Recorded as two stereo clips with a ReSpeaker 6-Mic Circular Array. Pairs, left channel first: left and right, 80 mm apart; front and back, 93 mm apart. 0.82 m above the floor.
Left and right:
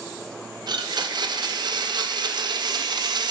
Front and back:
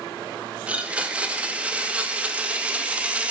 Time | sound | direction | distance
0.7 | a blender | 105° right | 0.6 m